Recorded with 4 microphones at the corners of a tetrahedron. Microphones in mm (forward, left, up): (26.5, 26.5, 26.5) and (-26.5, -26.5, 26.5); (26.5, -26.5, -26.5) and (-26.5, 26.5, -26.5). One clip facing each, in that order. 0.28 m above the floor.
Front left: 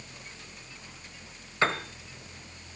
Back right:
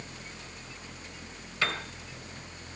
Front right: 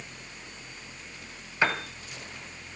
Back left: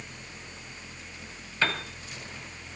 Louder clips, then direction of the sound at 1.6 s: Front left 5 dB, front right 2 dB; 10° left.